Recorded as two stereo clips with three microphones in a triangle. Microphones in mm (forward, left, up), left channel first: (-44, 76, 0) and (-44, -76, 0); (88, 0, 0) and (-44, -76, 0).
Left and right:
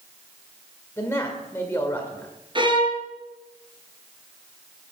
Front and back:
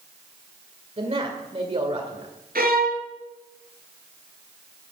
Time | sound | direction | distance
1.0 | a man speaking | 165° left | 2.0 m
2.5 | a violin | 145° right | 3 m